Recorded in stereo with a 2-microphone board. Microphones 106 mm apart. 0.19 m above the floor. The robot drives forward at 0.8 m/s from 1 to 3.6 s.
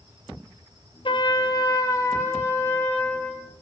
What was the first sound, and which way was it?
A trumpet, 50° left (ahead or behind).